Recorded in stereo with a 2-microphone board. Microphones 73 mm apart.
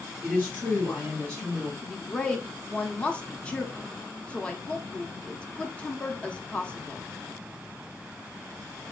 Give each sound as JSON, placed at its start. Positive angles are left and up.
{"t": 0.2, "sound": "a woman speaking", "side_deg": 20, "distance_m": 3.0}
{"t": 1.8, "sound": "a woman speaking", "side_deg": 15, "distance_m": 0.7}